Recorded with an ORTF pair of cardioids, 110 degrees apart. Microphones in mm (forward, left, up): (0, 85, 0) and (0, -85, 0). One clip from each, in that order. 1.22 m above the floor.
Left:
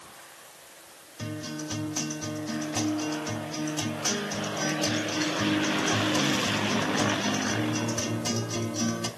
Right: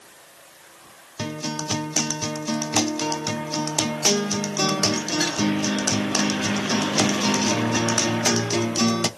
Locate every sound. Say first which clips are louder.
1.2 s a guitar: right 7 dB; 60° right, 0.7 m